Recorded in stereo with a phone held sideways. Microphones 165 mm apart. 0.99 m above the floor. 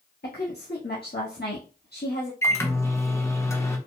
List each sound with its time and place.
0.2 s a woman speaking: 80° left, 1.5 m
2.4 s a microwave: 15° left (ahead or behind), 0.8 m